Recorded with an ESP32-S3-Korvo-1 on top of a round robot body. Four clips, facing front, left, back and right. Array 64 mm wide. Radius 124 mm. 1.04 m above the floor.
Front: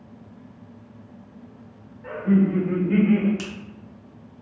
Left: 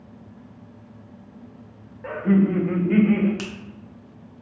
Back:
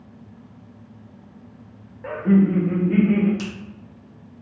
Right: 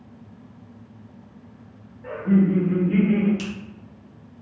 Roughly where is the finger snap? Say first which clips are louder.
Right 1 dB, back 3 dB; left.